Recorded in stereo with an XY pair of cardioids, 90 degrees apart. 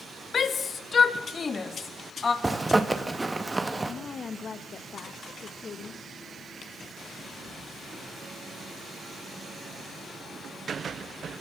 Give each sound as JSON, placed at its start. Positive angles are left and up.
{"t": 0.3, "sound": "a shout", "azimuth_deg": 50, "distance_m": 1.4}
{"t": 2.4, "sound": "a zipper", "azimuth_deg": -20, "distance_m": 1.8}
{"t": 3.9, "sound": "a woman speaking", "azimuth_deg": 50, "distance_m": 1.2}